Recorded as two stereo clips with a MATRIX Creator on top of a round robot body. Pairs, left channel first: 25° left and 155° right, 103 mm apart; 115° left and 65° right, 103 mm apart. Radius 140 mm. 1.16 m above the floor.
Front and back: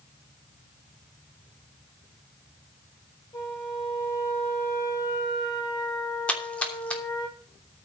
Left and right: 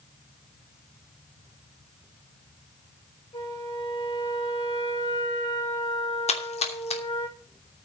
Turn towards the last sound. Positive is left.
turn(degrees=100)